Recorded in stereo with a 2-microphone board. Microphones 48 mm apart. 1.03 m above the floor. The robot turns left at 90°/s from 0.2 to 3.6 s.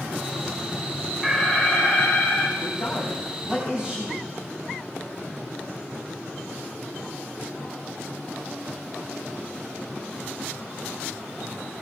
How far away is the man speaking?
About 5.5 m.